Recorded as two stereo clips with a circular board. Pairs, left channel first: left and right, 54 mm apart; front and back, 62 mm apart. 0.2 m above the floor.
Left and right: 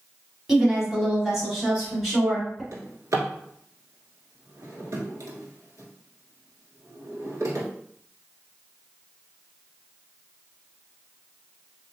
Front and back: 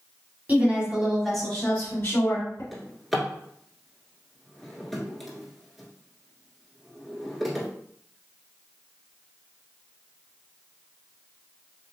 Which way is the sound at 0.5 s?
160° right.